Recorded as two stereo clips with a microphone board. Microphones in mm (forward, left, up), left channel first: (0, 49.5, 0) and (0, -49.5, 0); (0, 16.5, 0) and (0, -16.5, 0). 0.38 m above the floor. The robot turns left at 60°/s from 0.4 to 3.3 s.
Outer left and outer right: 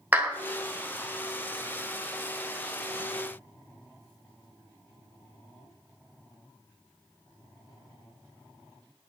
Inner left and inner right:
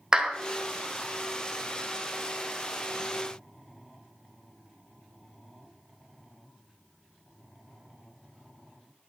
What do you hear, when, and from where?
0.1 s a clap: 15° right (ahead or behind), 1.5 m